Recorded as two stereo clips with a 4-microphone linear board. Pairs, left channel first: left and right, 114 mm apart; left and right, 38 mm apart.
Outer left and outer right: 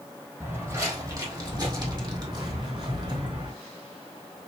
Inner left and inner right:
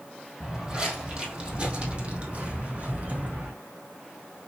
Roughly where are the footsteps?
Right.